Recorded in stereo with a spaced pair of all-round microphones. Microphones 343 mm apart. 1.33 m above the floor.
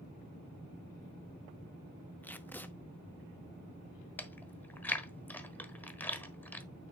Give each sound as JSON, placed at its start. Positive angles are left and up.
{"t": 2.2, "sound": "tape being pulled", "side_deg": 5, "distance_m": 0.7}
{"t": 4.2, "sound": "chewing", "side_deg": 5, "distance_m": 1.1}